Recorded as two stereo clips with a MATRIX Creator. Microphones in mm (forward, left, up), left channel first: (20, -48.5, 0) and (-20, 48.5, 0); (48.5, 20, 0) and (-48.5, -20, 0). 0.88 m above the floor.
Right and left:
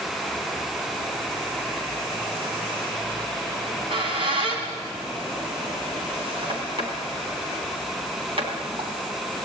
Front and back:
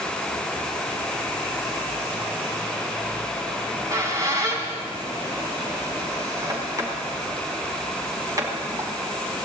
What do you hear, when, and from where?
3.6 s a squeak: 145° left, 4 m